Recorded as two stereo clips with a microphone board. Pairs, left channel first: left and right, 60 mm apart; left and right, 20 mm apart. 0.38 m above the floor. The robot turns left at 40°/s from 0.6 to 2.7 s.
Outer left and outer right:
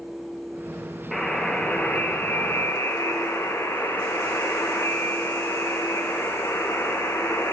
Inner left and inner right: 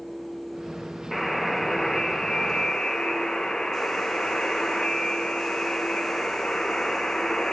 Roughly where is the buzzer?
Behind.